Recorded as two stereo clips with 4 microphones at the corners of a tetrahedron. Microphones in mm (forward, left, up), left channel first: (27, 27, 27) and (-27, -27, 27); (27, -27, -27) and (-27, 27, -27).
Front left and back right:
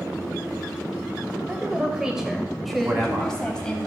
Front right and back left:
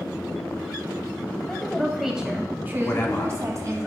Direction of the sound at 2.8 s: 100° right.